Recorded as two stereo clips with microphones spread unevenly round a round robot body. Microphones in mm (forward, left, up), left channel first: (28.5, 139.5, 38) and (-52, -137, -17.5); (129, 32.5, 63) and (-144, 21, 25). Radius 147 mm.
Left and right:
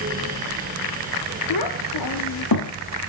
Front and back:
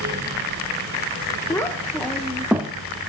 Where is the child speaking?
85° left, 1.8 m; by 2.8 s 105° left, 1.4 m.